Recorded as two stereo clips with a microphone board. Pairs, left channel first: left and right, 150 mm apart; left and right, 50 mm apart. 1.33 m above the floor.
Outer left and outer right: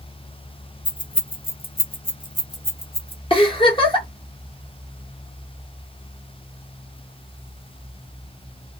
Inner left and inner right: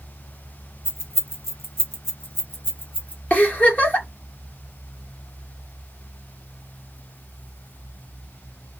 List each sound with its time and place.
0.8 s keys jangling: 55° left (ahead or behind), 0.7 m; by 3.2 s 35° left (ahead or behind), 1.1 m
3.3 s a giggle: 35° left (ahead or behind), 0.9 m